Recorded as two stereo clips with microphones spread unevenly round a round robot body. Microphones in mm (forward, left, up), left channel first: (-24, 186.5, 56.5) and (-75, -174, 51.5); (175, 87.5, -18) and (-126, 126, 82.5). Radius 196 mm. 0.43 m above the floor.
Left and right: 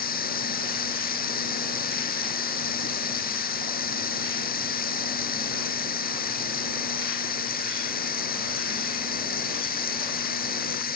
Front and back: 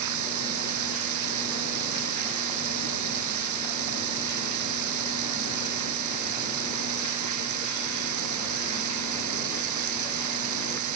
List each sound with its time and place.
0.0 s running water: 150° left